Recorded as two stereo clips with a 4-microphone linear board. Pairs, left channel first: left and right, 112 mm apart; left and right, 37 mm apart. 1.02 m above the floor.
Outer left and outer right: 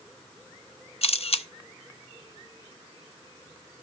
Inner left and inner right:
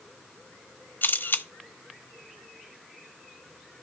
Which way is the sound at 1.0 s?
60° left (ahead or behind).